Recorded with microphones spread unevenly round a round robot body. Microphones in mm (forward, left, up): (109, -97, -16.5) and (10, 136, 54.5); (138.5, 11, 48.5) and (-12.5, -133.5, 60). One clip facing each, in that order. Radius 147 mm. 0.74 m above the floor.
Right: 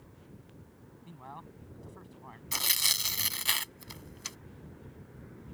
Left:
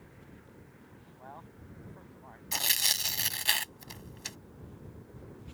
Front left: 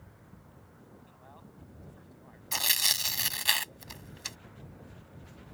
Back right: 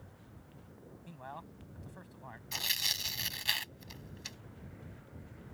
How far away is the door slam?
I don't hear a door slam.